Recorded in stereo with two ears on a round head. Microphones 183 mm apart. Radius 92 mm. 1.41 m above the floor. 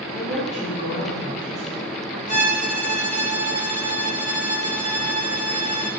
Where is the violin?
35° left (ahead or behind), 1.3 m.